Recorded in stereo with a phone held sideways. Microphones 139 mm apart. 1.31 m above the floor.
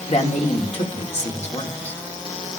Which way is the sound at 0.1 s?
50° left (ahead or behind).